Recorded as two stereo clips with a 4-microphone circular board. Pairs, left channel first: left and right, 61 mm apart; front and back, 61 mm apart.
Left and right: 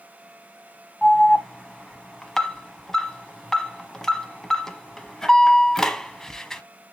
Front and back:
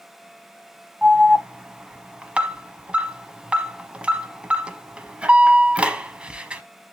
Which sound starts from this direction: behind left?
An alarm, at 1.0 s.